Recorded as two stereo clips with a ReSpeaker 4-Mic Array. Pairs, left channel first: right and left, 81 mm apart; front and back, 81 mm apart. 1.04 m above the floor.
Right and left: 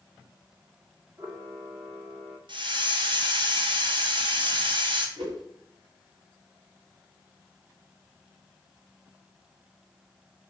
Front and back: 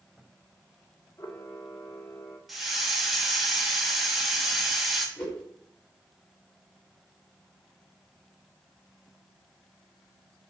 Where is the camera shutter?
55° left, 2.0 m.